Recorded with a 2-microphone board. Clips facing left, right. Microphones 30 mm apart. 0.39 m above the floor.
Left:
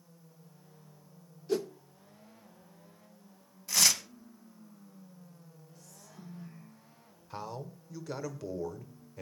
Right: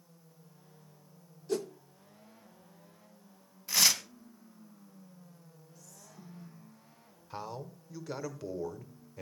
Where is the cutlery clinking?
I don't hear cutlery clinking.